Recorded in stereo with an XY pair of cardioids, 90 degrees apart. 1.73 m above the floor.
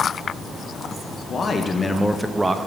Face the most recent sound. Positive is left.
turn(degrees=-30)